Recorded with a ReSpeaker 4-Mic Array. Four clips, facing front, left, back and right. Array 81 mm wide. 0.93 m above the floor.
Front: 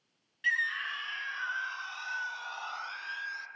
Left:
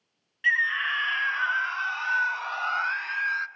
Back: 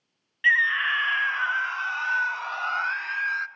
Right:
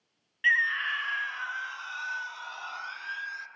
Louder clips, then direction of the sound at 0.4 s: Left 1 dB, back 10 dB; 170° right.